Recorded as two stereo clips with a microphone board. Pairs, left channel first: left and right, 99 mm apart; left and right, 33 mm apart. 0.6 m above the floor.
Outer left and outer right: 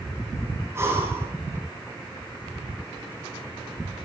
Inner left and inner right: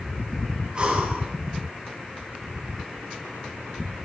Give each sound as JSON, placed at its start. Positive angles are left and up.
{"t": 0.8, "sound": "breathing", "side_deg": -25, "distance_m": 6.0}